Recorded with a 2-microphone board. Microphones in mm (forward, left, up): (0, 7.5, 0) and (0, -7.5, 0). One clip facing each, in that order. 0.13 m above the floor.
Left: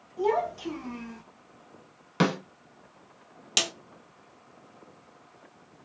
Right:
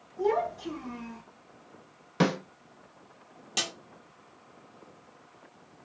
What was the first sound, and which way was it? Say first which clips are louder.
A child speaking: left 1 dB; 65° left (ahead or behind).